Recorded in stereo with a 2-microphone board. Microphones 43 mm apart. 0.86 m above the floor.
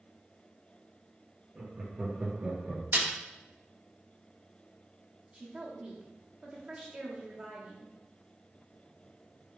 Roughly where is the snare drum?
Right.